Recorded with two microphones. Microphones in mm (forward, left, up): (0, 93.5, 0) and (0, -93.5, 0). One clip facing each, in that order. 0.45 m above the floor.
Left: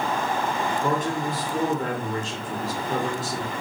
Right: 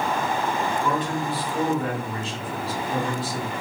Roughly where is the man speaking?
Left.